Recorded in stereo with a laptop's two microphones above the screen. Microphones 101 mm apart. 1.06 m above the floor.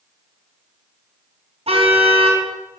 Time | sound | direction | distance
1.7 | a car horn | 80° right | 4.5 m